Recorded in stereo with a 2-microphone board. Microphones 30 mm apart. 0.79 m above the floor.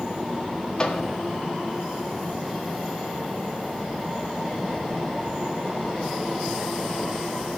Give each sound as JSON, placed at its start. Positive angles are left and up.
{"t": 0.8, "sound": "a microwave", "side_deg": 30, "distance_m": 1.5}